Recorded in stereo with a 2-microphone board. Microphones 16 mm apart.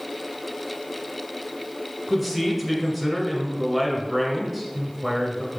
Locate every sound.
2.1 s a man speaking: 10° right (ahead or behind), 1.5 m